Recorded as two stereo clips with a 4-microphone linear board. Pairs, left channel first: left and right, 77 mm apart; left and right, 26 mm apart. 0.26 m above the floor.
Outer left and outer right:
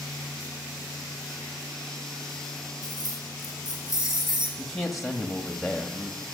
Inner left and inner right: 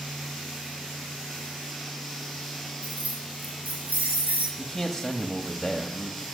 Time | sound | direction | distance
2.8 | keys jangling | 60° right (ahead or behind) | 3.5 m
4.6 | a man speaking | centre (ahead or behind) | 1.0 m